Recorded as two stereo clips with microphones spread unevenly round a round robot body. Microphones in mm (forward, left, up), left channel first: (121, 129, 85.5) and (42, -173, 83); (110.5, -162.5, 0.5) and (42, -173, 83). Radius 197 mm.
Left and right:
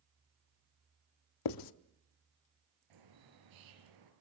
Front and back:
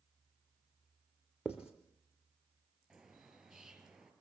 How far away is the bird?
About 4.5 m.